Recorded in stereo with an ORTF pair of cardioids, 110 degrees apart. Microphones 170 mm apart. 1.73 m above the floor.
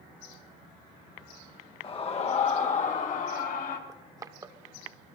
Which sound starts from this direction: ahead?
Crushing, at 3.9 s.